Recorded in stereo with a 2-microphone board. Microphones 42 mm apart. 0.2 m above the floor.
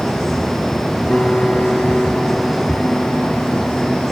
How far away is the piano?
About 0.8 m.